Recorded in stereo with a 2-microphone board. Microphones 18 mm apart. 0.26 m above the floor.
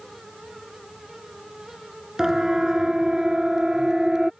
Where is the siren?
35° right (ahead or behind); by 4.3 s 45° right (ahead or behind).